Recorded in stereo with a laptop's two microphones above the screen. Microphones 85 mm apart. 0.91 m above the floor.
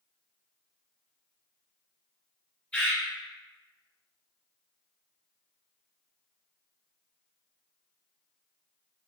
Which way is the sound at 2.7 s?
20° left (ahead or behind).